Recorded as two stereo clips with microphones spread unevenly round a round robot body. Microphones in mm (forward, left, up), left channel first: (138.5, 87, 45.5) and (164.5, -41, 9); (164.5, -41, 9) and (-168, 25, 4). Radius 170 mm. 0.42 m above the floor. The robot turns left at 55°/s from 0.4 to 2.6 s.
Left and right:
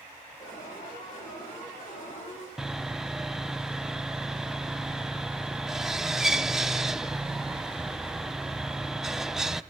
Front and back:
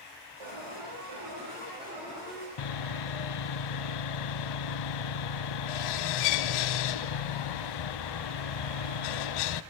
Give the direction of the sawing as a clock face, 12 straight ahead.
12 o'clock.